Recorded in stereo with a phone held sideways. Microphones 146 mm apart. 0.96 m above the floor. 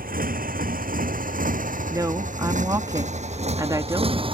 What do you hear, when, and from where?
0.0 s a motorcycle: 80° right; by 4.3 s 35° right (ahead or behind)
1.9 s a woman speaking: 25° right (ahead or behind)